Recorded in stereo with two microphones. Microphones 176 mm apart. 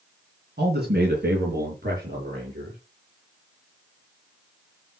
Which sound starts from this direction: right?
A man speaking, at 0.6 s.